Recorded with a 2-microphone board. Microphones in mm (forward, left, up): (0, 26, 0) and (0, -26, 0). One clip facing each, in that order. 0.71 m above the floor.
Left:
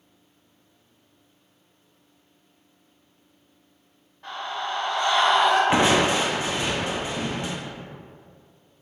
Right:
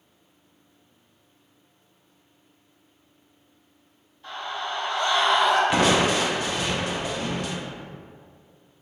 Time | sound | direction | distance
4.2 | a scream | 60° left (ahead or behind) | 1.3 m
5.7 | crushing | 25° left (ahead or behind) | 0.6 m